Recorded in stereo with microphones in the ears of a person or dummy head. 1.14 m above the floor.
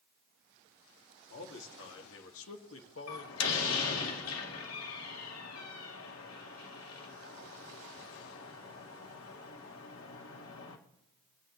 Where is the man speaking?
70° left (ahead or behind), 2.5 m; by 4.0 s 60° left (ahead or behind), 1.4 m.